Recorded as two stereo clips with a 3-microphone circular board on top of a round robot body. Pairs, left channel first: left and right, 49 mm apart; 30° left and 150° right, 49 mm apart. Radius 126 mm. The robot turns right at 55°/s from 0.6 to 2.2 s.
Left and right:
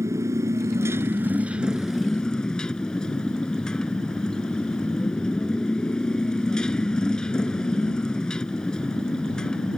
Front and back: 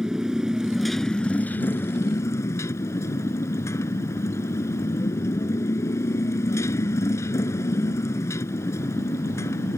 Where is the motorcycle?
70° right; by 9.8 s 15° left.